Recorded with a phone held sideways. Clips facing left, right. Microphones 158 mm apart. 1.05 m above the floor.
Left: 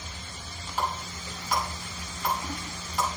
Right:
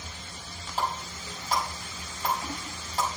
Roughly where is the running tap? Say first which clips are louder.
Even; right.